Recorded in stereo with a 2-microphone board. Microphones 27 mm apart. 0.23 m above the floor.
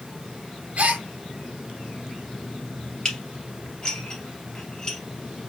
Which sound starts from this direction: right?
A gasp, at 0.8 s.